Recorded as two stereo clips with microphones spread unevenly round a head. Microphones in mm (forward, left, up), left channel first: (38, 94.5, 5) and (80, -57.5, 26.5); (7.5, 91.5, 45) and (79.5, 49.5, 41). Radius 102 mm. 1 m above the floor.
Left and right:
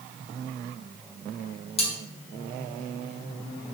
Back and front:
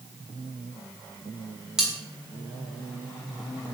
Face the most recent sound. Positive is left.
turn(degrees=50)